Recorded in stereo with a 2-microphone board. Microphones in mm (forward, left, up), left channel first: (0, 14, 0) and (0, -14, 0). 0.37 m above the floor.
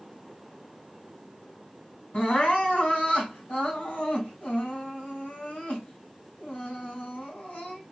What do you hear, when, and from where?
2.1 s crying: 65° left (ahead or behind), 3 m